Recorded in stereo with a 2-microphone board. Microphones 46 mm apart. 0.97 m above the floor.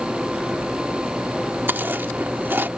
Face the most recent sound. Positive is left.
turn(degrees=-55)  # may be behind; listen again after turning